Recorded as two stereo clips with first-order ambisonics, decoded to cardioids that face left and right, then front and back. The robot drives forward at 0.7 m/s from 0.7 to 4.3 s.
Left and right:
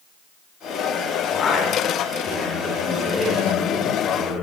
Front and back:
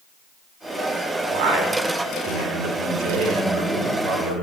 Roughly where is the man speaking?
Behind.